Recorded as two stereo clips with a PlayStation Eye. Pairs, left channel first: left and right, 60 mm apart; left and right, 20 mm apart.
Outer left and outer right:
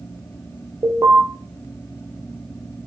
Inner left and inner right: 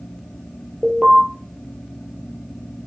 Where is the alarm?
60° right (ahead or behind), 3 m.